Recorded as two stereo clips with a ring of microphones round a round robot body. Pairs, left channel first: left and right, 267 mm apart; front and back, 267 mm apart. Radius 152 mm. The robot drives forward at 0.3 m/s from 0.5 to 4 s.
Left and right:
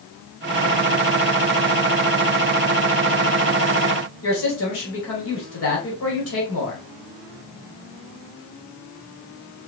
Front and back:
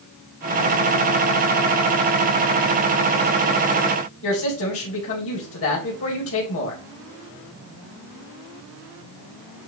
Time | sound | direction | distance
4.2 | a woman speaking | 45° left | 2.5 m